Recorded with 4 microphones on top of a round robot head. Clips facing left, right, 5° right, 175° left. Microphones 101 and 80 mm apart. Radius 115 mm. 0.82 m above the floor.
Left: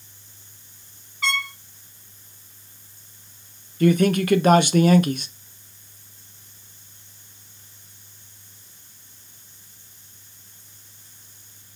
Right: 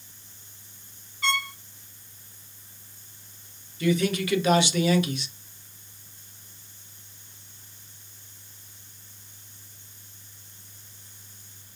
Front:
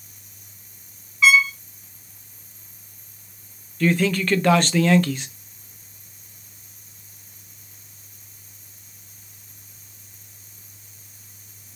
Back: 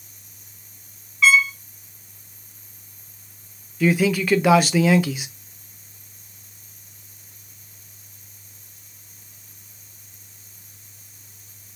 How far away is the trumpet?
About 0.8 m.